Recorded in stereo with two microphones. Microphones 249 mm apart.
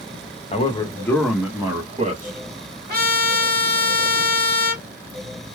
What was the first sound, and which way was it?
A man speaking, 25° left (ahead or behind).